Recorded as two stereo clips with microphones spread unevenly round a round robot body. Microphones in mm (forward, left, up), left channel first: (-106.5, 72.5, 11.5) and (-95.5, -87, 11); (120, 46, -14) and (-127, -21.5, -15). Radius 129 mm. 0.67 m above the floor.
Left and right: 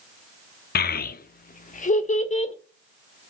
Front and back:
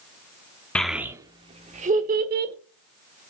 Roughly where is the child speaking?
Left.